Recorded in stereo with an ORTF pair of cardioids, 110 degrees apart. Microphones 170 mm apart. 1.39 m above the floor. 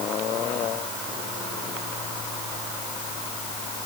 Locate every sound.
Only background noise.